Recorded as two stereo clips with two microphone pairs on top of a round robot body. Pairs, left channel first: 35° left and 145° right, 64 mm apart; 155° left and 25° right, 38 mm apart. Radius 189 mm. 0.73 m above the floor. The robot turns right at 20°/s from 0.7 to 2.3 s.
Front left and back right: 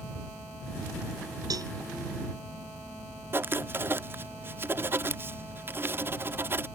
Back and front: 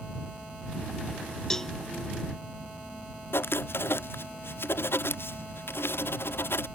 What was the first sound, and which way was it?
A cowbell, 125° right.